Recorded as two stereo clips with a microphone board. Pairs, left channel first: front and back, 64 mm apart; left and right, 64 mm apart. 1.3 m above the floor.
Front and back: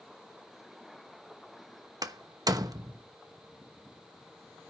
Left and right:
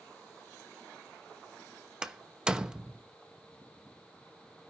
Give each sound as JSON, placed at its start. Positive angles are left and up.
{"t": 2.0, "sound": "a door slam", "azimuth_deg": -165, "distance_m": 1.0}